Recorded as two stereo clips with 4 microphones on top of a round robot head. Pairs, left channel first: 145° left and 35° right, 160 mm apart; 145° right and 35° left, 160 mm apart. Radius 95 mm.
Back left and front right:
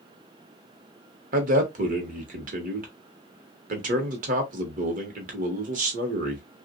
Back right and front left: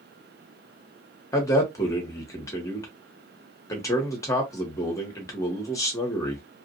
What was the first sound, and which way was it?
A man speaking, 75° right.